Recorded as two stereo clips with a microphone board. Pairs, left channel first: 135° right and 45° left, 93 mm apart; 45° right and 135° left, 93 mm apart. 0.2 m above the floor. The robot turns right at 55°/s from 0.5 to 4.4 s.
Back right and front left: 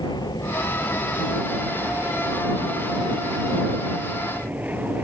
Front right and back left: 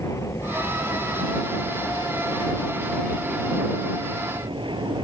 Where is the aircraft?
100° right; by 5.0 s 115° left.